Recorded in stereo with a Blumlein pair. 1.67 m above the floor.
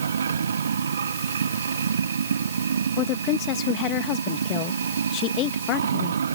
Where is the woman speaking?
35° left.